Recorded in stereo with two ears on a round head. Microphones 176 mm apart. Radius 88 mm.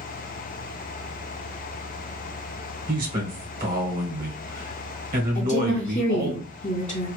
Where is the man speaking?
45° right (ahead or behind), 1.4 m.